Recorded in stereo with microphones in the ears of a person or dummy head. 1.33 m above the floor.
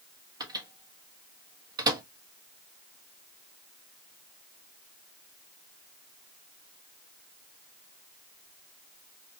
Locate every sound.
0.4 s a microwave: 25° right (ahead or behind), 1.3 m